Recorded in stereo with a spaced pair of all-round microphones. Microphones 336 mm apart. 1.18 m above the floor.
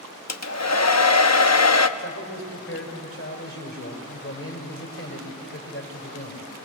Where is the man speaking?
45° left (ahead or behind), 5 m.